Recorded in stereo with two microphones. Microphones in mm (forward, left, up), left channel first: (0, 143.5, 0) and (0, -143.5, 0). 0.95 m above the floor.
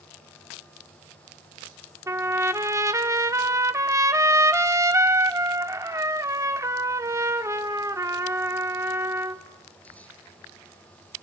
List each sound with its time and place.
2.1 s a trumpet: 10° right (ahead or behind), 0.9 m